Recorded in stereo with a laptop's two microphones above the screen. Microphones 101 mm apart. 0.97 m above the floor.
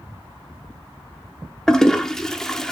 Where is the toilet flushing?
5° left (ahead or behind), 0.6 m.